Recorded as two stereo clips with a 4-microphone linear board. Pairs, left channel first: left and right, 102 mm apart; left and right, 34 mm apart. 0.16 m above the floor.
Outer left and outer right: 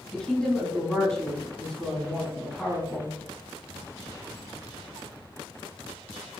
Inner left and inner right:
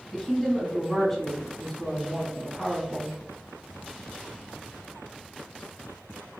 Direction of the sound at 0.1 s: 5° left (ahead or behind).